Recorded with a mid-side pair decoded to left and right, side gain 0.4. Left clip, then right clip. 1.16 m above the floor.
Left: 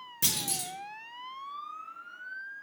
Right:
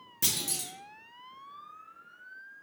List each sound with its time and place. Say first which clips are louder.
0.2 s a clunk: left 1 dB; straight ahead, 0.8 m